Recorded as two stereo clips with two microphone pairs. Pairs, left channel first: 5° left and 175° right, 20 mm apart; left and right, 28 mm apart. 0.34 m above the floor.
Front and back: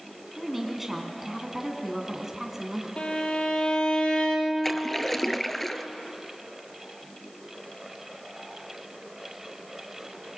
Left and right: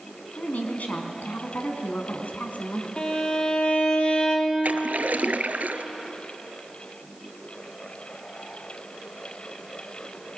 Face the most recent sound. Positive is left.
turn(degrees=-75)